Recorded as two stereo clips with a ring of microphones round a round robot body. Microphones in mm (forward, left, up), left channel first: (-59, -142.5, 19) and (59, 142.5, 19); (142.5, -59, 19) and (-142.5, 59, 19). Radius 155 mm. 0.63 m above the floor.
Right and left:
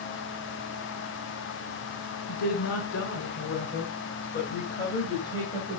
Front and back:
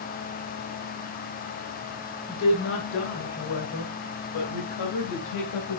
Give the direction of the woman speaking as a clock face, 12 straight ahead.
3 o'clock.